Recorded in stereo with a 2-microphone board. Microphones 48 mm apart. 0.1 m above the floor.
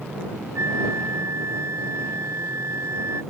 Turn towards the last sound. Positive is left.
turn(degrees=-75)  # may be behind; listen again after turning